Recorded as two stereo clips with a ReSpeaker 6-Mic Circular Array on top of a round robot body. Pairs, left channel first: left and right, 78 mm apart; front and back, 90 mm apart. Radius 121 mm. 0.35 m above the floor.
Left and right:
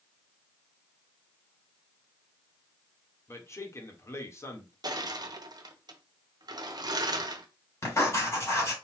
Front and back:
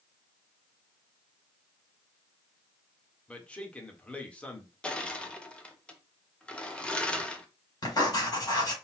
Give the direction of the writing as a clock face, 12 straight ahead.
11 o'clock.